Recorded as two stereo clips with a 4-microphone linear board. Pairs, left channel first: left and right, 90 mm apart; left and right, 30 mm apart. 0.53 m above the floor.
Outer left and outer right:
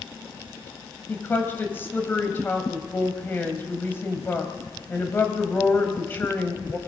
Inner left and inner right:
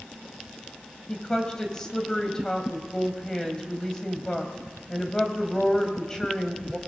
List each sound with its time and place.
1.1 s a woman speaking: 25° left (ahead or behind), 3 m